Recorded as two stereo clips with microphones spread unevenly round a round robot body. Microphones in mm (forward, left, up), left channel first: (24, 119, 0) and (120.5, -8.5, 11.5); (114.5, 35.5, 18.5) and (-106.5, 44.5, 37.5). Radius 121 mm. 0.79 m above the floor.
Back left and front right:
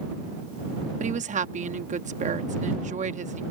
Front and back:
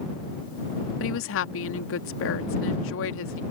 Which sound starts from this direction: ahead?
A woman speaking, at 1.0 s.